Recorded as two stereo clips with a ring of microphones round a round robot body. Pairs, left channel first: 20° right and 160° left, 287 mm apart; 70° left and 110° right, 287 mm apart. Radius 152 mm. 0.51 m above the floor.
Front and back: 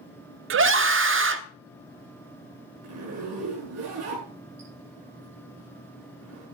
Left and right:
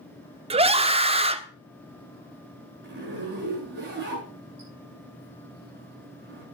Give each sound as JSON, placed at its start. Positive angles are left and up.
{"t": 0.5, "sound": "a scream", "azimuth_deg": -175, "distance_m": 0.9}
{"t": 2.8, "sound": "a zipper", "azimuth_deg": -165, "distance_m": 7.5}